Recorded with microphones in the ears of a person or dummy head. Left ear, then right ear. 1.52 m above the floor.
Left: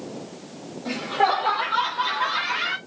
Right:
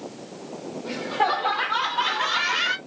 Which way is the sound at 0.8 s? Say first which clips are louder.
Left 2 dB; 5° left (ahead or behind).